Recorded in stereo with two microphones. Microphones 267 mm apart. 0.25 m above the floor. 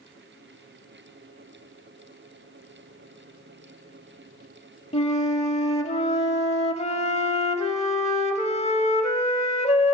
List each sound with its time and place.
4.9 s a flute: 25° left (ahead or behind), 0.7 m